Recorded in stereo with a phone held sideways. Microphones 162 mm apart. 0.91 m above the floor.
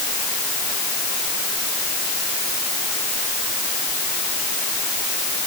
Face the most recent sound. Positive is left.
No sound to turn to.